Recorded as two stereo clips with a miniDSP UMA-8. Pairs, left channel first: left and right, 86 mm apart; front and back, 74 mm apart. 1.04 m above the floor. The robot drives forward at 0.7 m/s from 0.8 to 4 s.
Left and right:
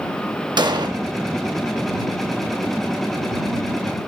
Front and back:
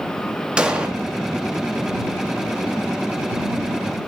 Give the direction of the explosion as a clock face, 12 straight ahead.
3 o'clock.